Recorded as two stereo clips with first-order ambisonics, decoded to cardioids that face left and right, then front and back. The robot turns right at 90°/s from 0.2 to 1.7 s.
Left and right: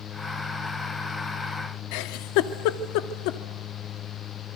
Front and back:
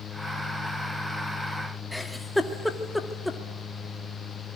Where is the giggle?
90° left, 1.5 m.